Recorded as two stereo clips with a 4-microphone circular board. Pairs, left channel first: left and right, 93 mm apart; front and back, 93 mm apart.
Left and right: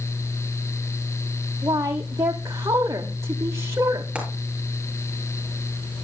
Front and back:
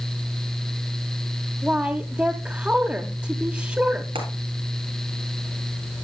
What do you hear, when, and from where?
1.6 s a woman speaking: 120° right, 0.9 m
4.2 s frying: 170° right, 4 m